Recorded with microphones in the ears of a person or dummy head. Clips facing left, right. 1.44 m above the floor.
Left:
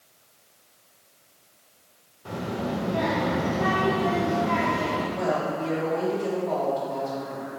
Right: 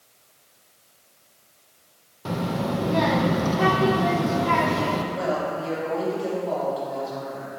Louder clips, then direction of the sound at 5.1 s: Even; 5° right (ahead or behind).